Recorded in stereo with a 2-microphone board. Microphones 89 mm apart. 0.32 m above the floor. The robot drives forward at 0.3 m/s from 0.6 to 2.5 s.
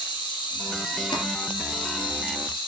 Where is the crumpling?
65° left (ahead or behind), 3 m.